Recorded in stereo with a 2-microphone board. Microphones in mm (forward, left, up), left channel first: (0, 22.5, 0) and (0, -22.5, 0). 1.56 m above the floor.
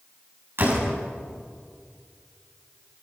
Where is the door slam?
55° right (ahead or behind), 7 m.